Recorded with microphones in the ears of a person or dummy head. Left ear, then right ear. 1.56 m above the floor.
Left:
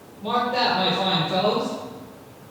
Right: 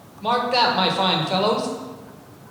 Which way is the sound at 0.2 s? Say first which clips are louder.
Right 3 dB; 45° right (ahead or behind).